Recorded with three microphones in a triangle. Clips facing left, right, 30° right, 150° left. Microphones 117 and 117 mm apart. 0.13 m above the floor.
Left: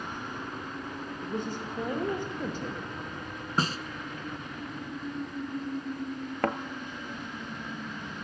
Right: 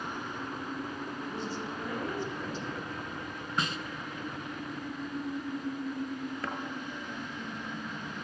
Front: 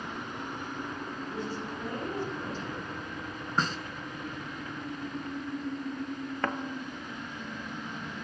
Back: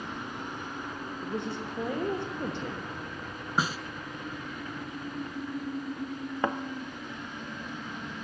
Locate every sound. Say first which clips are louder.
1.2 s a woman speaking: left 5 dB, back 3 dB; 130° left, 6.5 m
3.6 s a snare drum: left 4 dB, back 1 dB; 75° left, 0.9 m
6.4 s a thud: left 13 dB, back 3 dB; 80° left, 1.0 m